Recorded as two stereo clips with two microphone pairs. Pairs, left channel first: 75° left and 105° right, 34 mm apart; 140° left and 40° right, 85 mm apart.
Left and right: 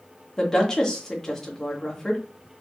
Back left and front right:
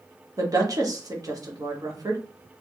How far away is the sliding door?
No sliding door in this recording.